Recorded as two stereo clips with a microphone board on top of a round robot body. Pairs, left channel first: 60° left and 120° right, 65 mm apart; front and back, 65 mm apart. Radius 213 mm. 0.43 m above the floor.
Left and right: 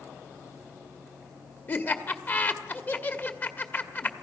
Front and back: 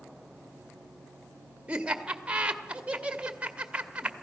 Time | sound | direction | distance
1.7 | laughter | 110° left | 1.9 m